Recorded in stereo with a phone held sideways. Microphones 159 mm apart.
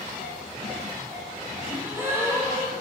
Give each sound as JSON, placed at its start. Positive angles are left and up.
{"t": 1.7, "sound": "a gasp", "side_deg": -15, "distance_m": 0.7}